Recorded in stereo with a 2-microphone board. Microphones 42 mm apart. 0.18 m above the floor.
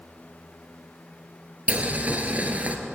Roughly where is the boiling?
Right.